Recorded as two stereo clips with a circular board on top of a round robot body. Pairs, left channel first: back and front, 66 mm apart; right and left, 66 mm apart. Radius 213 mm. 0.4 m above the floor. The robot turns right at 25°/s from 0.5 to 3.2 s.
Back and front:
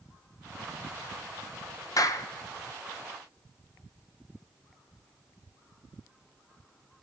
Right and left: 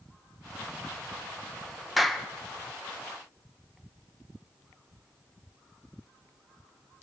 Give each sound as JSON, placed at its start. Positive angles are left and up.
{"t": 2.0, "sound": "a clap", "azimuth_deg": 180, "distance_m": 1.7}